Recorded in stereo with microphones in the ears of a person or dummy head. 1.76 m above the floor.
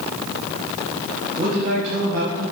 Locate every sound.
1.4 s a man speaking: 30° right (ahead or behind), 3.5 m; by 2.5 s 50° right (ahead or behind), 2.5 m